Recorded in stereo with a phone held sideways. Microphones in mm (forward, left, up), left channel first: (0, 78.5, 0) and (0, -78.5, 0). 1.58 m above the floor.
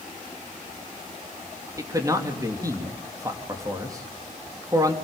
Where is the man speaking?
20° right (ahead or behind), 3.5 m.